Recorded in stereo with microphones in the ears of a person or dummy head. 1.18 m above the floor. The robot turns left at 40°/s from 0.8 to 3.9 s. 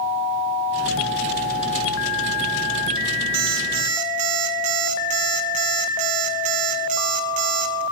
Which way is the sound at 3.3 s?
65° right (ahead or behind).